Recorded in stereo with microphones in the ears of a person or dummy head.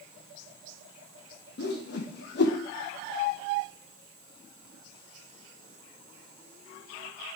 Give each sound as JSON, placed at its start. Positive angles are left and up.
{"t": 1.6, "sound": "a whoosh", "side_deg": 65, "distance_m": 1.2}